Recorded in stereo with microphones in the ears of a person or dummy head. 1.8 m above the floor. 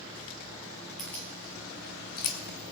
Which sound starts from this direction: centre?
Keys jangling, at 1.0 s.